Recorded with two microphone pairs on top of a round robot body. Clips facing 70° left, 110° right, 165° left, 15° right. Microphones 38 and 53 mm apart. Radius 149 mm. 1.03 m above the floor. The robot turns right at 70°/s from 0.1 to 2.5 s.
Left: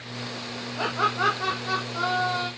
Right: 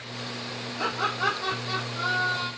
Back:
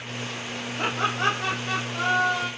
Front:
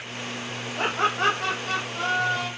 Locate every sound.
0.8 s laughter: 15° left, 0.7 m; by 2.5 s 135° left, 0.7 m